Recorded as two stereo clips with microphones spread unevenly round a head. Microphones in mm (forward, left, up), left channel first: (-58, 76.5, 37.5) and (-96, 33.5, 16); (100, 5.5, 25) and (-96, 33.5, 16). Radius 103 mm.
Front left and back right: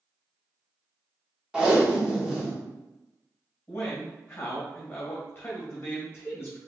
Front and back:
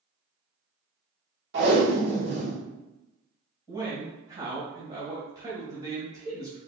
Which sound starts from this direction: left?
A man speaking, at 3.7 s.